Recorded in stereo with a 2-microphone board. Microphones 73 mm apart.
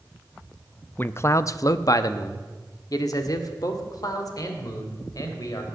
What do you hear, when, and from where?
1.0 s a man speaking: 25° left (ahead or behind), 0.5 m; by 5.7 s 55° left (ahead or behind), 3 m